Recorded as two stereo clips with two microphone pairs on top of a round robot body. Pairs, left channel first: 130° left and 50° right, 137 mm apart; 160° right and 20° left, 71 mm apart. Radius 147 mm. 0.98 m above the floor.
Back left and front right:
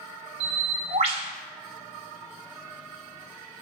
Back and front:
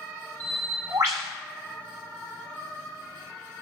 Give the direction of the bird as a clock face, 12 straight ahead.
1 o'clock.